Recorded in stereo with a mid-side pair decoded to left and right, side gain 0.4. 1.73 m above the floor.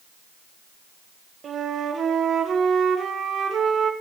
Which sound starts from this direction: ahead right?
A flute, at 1.4 s.